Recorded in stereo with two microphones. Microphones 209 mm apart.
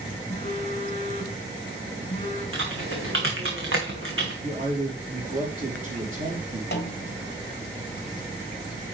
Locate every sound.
0.3 s a phone buzzing: 30° left (ahead or behind), 3.5 m
2.5 s typing on a keyboard: 80° right, 2.5 m
4.4 s a man speaking: 40° right (ahead or behind), 4 m
6.7 s a snare drum: 55° left (ahead or behind), 1.1 m